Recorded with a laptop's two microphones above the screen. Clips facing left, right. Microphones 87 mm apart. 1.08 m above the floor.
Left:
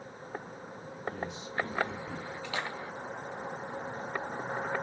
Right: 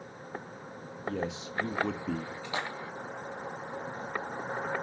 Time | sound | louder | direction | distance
1.1 | a man speaking | right 4 dB | 85° right | 1.4 m
2.4 | a splash | even | 20° right (ahead or behind) | 1.4 m